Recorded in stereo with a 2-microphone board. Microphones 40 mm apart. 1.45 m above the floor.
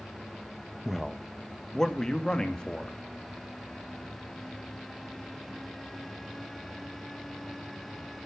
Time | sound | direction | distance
0.8 | a man speaking | centre (ahead or behind) | 1.3 m